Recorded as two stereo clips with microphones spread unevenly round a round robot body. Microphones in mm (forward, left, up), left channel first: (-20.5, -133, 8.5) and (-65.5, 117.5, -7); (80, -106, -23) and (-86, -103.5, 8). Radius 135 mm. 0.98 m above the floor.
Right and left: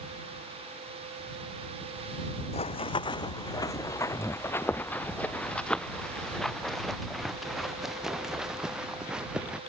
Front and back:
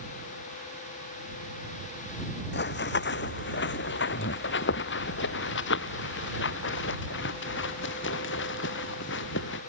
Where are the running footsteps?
15° right; by 9.6 s 15° left.